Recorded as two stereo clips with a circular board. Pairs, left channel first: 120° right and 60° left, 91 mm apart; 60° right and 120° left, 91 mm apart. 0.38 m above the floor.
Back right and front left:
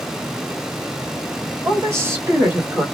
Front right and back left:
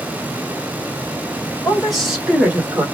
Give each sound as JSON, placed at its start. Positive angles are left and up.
{"t": 1.6, "sound": "a woman speaking", "azimuth_deg": 25, "distance_m": 1.6}